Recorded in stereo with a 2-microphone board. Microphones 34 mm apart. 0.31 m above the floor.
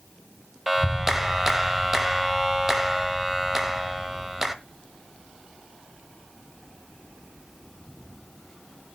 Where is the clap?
10° right (ahead or behind), 1.2 m.